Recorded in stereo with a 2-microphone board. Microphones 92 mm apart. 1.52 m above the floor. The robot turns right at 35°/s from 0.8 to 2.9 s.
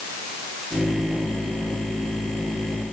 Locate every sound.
Only background noise.